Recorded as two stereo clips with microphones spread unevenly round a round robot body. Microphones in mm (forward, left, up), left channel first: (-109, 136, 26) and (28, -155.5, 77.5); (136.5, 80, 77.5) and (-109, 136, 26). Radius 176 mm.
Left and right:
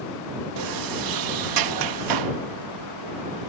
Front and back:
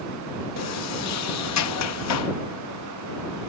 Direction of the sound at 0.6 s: 40° right.